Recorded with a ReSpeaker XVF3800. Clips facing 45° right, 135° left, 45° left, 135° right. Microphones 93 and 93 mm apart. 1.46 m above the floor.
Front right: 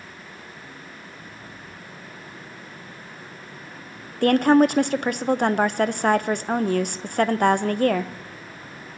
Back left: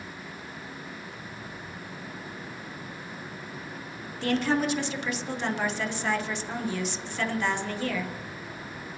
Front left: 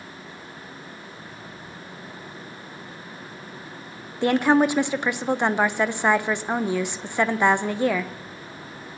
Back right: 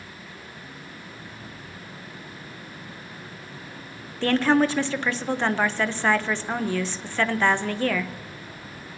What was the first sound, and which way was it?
A woman speaking, 25° right.